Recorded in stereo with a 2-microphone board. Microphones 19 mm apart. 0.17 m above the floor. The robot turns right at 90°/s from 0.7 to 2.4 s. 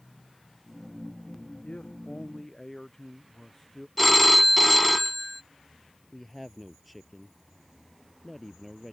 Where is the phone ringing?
Centre (ahead or behind).